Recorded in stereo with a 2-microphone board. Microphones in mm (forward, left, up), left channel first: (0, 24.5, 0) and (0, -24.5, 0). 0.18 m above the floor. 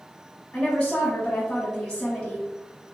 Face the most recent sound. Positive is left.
turn(degrees=15)  # may be behind; listen again after turning